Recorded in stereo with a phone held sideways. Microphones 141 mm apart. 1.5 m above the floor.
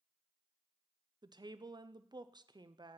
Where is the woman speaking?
30° right (ahead or behind), 0.5 m.